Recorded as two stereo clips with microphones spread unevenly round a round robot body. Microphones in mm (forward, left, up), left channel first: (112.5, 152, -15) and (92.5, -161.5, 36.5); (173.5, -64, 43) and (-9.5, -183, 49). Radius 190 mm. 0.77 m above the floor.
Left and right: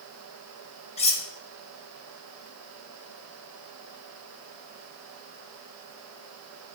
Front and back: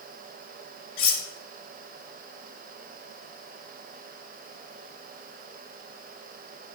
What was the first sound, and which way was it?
Cutlery clinking, 20° left.